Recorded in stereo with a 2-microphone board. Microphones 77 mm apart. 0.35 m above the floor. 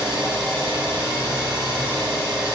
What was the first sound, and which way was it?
An engine running, 65° right (ahead or behind).